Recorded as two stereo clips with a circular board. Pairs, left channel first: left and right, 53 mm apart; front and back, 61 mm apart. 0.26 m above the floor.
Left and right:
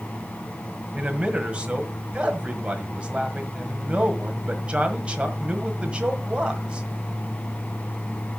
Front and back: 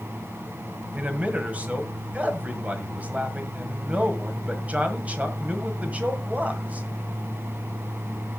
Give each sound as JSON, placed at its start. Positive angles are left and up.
{"t": 0.9, "sound": "a man speaking", "azimuth_deg": -140, "distance_m": 1.7}